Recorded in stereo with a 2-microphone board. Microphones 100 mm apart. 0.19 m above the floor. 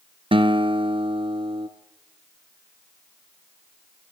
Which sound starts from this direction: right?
A guitar, at 0.3 s.